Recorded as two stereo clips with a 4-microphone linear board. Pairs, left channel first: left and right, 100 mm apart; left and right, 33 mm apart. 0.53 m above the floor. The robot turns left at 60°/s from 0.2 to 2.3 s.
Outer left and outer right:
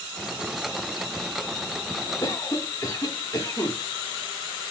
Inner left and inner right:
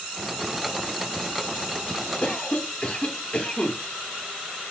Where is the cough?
35° left (ahead or behind), 0.8 m.